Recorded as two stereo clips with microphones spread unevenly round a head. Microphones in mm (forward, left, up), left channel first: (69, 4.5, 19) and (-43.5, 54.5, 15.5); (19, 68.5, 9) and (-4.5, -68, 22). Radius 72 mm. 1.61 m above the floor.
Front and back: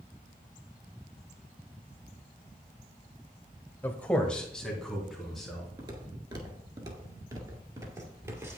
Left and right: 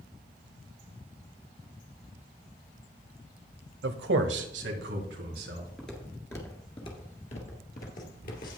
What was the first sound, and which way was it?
A man speaking, 100° right.